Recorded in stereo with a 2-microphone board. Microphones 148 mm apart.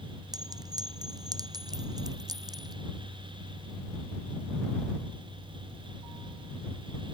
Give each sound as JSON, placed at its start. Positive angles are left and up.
{"t": 0.3, "sound": "a clink", "side_deg": -25}